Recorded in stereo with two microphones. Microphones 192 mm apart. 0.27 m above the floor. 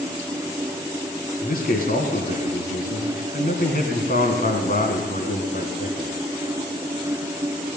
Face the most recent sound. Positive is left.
turn(degrees=50)  # may be behind; listen again after turning